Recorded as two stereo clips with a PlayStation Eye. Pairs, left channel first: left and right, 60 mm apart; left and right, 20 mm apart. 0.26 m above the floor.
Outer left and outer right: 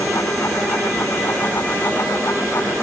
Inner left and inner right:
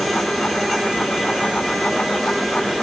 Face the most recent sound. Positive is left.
No sound to turn to.